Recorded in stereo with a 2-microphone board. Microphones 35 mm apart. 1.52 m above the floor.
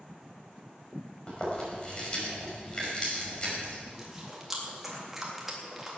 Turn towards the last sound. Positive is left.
turn(degrees=-10)  # may be behind; listen again after turning